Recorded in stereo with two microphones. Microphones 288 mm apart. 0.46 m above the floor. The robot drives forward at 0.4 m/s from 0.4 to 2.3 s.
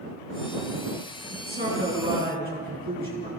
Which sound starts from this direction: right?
A man speaking, at 1.3 s.